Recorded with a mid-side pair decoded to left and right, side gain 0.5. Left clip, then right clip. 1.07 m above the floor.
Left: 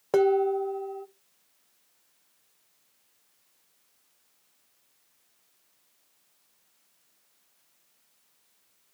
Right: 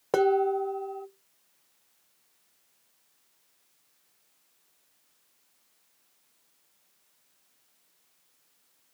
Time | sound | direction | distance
0.1 | dishes clattering | 15° right | 0.6 m